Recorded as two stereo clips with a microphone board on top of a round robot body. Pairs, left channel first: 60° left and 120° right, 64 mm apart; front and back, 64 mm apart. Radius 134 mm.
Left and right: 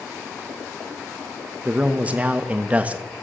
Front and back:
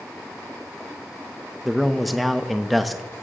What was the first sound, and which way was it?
A man speaking, 90° right.